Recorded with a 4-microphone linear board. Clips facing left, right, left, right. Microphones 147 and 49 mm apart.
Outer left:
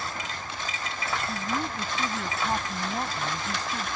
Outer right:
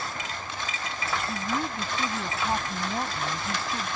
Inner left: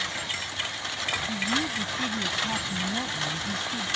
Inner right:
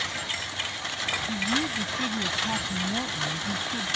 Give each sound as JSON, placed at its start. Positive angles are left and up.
{"t": 1.3, "sound": "a woman speaking", "side_deg": -5}